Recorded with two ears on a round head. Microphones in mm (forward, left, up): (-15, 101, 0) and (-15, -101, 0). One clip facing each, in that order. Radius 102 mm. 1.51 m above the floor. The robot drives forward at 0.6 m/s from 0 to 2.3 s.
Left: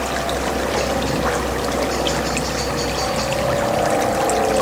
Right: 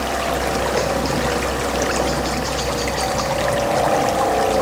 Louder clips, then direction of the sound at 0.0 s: Right 1 dB; 5° left (ahead or behind).